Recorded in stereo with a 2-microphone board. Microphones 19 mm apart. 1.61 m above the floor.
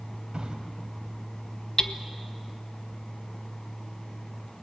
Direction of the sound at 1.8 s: 40° left (ahead or behind).